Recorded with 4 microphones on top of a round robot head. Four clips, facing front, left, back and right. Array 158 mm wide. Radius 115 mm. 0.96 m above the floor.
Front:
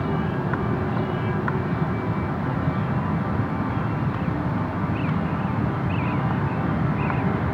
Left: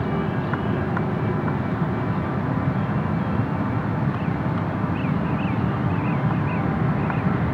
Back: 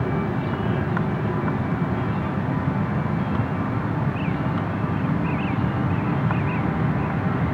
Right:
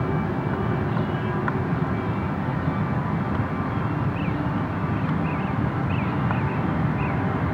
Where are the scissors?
No scissors in this recording.